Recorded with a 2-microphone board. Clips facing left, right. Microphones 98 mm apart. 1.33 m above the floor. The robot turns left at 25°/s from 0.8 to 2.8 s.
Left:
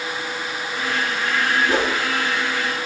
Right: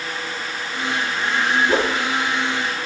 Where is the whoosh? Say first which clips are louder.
Right 1 dB; centre (ahead or behind), 4.5 m; by 1.9 s 5° left (ahead or behind), 4.5 m.